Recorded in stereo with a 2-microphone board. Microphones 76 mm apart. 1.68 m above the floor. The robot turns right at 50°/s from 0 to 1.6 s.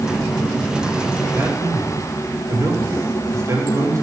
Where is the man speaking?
35° right (ahead or behind), 4 m; by 4.0 s 45° right (ahead or behind), 4 m.